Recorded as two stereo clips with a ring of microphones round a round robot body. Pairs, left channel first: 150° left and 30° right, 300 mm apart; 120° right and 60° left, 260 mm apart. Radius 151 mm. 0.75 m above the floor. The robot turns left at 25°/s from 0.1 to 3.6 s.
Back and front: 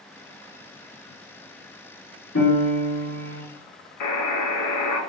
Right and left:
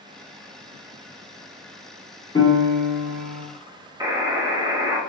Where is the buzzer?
135° left, 0.6 m.